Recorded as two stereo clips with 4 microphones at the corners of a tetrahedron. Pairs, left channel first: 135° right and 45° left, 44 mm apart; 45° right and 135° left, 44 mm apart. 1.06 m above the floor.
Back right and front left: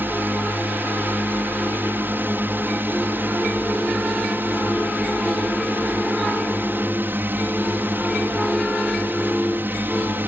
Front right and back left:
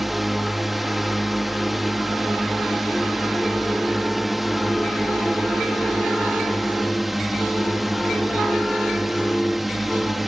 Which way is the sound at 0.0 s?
45° left.